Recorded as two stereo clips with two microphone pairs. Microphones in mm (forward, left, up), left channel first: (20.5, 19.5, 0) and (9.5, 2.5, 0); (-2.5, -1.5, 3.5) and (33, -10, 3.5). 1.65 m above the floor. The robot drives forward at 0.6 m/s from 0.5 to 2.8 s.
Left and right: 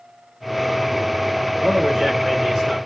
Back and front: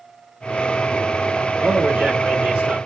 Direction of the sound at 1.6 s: 65° right.